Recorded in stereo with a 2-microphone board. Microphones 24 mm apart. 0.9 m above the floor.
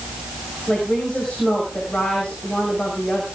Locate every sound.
0.7 s a woman speaking: 45° left (ahead or behind), 6 m